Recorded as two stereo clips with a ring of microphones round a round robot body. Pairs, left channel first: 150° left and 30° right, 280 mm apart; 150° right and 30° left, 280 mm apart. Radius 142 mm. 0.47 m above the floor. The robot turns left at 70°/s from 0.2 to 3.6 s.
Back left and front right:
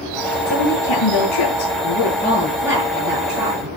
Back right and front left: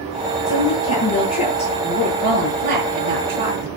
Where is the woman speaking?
150° right, 7 m; by 3.7 s 10° right, 7 m.